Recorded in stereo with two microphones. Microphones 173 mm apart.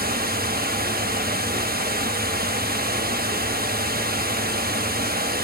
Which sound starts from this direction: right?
Running water, at 0.0 s.